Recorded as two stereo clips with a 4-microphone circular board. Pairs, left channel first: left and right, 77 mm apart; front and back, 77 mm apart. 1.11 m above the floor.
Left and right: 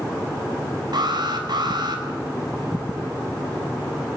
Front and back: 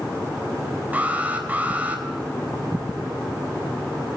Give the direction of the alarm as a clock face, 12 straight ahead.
4 o'clock.